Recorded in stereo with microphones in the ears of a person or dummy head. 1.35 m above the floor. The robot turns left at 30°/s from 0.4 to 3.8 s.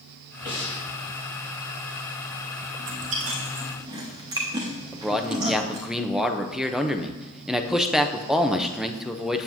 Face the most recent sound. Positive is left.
turn(degrees=-5)  # may be behind; listen again after turning